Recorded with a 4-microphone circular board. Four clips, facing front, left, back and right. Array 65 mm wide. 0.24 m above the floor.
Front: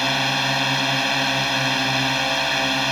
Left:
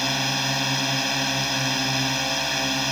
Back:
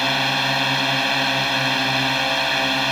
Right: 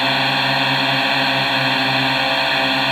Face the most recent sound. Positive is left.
turn(degrees=-95)